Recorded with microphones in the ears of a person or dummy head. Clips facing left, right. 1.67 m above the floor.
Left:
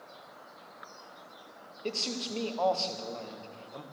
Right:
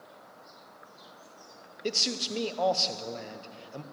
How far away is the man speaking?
About 1.0 m.